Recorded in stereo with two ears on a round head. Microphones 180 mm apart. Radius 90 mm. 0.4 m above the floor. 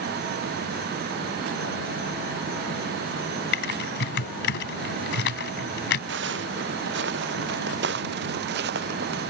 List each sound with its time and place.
3.5 s typing on a keyboard: 60° left (ahead or behind)
6.1 s footsteps: 60° right (ahead or behind); by 9.3 s 55° right (ahead or behind)